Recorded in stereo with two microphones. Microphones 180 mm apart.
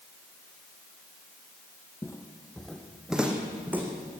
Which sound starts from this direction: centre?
Footsteps, at 2.0 s.